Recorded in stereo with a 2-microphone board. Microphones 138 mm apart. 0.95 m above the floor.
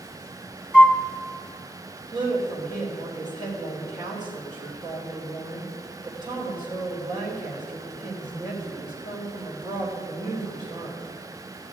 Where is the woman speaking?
35° right (ahead or behind), 3 m.